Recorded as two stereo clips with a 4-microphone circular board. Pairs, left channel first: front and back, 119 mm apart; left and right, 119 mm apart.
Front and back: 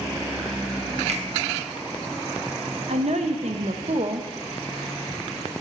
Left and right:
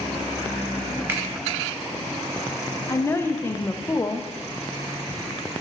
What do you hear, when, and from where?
1.1 s a finger snap: 160° right, 0.7 m
2.9 s a woman speaking: 160° left, 0.6 m